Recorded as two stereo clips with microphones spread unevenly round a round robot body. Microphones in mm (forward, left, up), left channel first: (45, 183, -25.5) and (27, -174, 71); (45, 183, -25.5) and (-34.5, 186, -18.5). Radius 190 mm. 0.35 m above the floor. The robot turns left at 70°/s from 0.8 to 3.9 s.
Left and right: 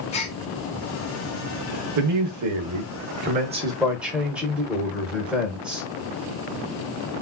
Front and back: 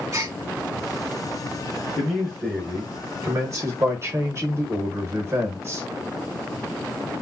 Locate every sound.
0.1 s a gasp: 135° left, 0.7 m
2.0 s a man speaking: 70° right, 1.0 m; by 5.8 s 155° left, 1.0 m